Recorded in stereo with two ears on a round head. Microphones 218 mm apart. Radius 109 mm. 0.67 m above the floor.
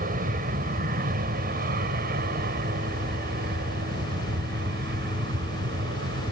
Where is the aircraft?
35° right (ahead or behind); by 6.3 s 45° right (ahead or behind).